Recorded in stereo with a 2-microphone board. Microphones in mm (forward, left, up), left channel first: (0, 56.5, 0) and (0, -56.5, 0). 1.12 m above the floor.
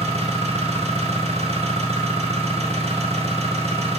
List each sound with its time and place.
0.0 s an engine running: 60° right (ahead or behind), 1.3 m